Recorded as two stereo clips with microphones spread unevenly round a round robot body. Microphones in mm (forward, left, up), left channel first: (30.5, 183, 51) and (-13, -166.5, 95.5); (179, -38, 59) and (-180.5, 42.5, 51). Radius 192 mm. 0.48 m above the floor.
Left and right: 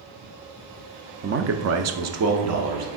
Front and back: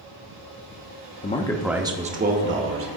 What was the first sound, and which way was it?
A man speaking, 55° right.